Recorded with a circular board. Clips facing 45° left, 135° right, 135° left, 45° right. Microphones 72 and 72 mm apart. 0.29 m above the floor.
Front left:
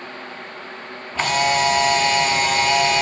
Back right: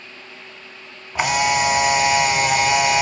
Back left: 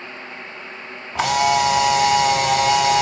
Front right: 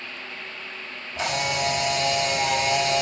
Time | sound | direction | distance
1.1 | a camera shutter | 145° left | 0.5 m